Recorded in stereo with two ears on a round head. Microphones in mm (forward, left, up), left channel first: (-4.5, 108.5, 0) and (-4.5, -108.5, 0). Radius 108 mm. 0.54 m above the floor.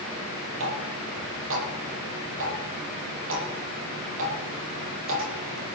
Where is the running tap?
55° right (ahead or behind), 8.5 m.